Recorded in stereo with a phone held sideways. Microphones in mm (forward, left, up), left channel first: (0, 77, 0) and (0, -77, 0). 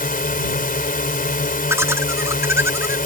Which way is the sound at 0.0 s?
65° left (ahead or behind).